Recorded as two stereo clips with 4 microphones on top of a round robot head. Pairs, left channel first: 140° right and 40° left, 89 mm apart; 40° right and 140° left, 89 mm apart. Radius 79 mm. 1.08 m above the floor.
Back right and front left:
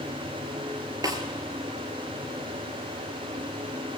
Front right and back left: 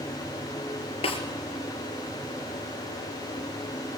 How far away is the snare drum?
About 3.5 m.